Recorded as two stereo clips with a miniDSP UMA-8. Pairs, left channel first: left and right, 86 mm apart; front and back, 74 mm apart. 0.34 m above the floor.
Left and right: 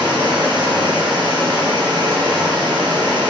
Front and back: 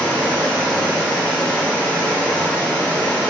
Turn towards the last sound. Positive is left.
turn(degrees=-75)